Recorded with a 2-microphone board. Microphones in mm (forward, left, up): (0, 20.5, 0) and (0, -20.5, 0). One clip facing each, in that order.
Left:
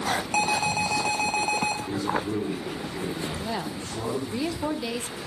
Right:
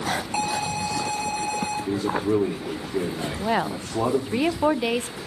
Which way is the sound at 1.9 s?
75° right (ahead or behind).